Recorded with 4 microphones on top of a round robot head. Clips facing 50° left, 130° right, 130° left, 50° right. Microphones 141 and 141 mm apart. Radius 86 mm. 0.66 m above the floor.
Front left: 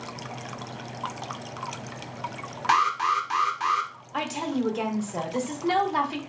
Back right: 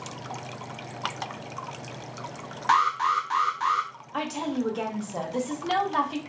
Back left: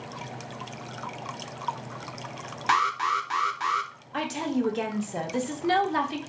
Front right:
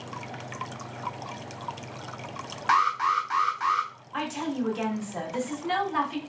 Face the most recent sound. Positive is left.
turn(degrees=135)